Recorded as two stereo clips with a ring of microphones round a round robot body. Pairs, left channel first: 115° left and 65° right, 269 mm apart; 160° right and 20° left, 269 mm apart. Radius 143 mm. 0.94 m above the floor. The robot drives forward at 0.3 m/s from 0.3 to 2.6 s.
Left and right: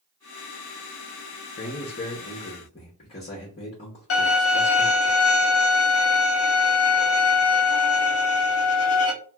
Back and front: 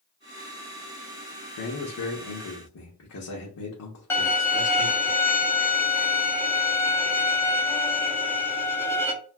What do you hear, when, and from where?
1.6 s a man speaking: 175° left, 0.7 m
4.1 s a violin: 125° left, 0.8 m